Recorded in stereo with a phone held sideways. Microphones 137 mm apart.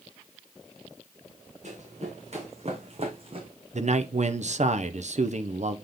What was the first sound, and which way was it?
Running footsteps, 55° right (ahead or behind).